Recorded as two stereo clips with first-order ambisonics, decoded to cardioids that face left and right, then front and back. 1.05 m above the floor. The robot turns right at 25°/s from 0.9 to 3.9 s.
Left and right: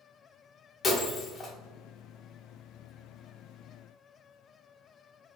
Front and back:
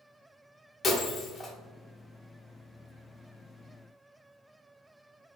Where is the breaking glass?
45° left, 0.7 m; by 1.5 s 60° left, 0.7 m.